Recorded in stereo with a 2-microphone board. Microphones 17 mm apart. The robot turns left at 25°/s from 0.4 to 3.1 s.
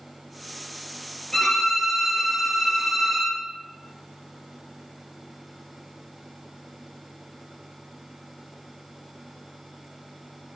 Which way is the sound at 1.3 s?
30° left.